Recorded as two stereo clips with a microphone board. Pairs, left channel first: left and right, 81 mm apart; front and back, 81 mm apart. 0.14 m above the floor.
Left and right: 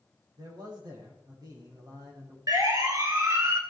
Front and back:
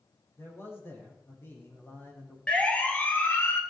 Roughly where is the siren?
Right.